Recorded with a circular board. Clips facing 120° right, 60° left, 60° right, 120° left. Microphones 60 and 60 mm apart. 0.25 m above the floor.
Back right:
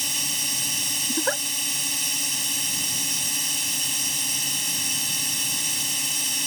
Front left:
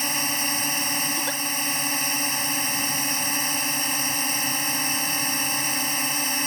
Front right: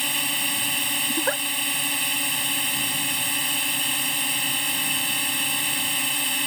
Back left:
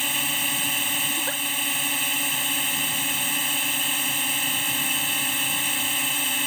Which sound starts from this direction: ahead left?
A drone, at 0.0 s.